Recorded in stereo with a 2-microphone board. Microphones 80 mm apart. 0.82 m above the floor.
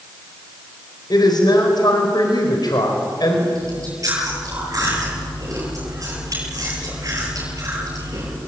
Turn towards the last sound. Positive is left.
turn(degrees=-45)  # may be behind; listen again after turning